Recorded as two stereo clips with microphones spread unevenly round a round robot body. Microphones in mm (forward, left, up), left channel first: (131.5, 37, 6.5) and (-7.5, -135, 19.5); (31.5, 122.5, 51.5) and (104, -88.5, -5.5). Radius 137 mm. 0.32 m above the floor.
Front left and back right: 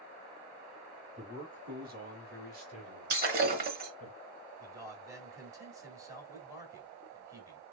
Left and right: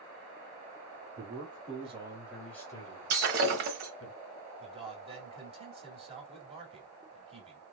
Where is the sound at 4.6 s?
55° right, 1.6 m.